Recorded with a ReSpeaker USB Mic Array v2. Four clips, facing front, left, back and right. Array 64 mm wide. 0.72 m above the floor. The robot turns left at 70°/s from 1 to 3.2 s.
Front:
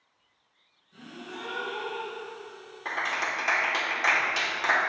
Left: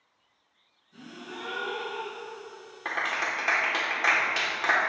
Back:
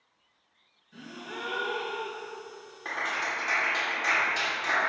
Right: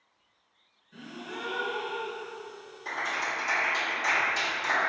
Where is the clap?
90° left, 1.7 m; by 4.8 s 65° left, 1.7 m.